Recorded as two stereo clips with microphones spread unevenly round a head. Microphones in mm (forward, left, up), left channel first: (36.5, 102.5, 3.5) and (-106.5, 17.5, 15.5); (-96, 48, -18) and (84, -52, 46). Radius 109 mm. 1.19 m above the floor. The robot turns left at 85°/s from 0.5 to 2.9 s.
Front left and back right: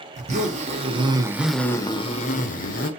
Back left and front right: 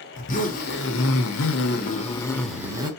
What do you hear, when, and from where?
0.1 s a zipper: 150° right, 0.7 m; by 2.9 s 10° left, 0.7 m